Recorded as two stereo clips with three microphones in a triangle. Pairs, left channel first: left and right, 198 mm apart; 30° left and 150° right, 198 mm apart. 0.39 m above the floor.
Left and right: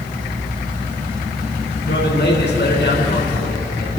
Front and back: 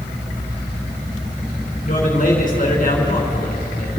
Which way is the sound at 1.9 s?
70° left.